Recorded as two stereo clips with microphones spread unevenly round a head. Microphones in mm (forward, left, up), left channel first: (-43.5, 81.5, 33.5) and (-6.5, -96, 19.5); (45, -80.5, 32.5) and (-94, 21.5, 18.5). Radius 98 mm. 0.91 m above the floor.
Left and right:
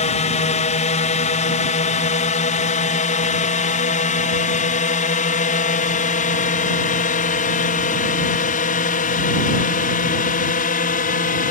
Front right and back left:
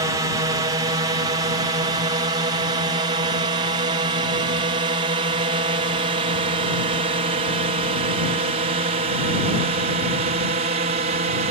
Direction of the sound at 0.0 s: 95° left.